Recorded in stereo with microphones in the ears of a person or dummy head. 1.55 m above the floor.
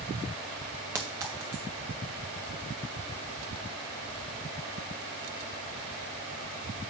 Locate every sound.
0.9 s a clink: 10° right (ahead or behind), 0.6 m